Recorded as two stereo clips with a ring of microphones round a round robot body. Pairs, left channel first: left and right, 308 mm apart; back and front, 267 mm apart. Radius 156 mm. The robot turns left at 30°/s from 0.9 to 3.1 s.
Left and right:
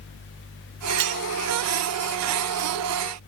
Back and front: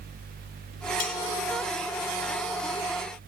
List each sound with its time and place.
1.0 s cutlery clinking: 115° right, 0.9 m; by 1.2 s 125° right, 0.9 m